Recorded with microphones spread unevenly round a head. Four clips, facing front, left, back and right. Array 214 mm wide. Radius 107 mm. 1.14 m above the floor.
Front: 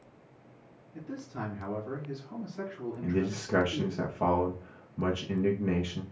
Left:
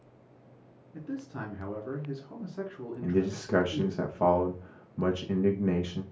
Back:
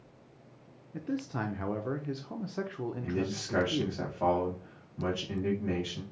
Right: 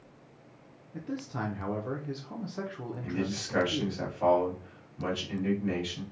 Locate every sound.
0.9 s a man speaking: 175° right, 0.9 m
3.0 s a man speaking: 50° left, 1.0 m